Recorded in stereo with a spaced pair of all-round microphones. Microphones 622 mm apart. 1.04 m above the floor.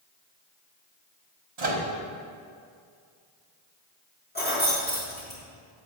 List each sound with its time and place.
1.6 s a microwave: 70° right (ahead or behind), 1.1 m
4.3 s keys jangling: 15° left (ahead or behind), 1.7 m